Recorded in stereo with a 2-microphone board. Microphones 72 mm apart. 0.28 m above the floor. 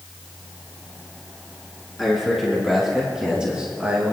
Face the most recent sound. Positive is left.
turn(degrees=-20)  # may be behind; listen again after turning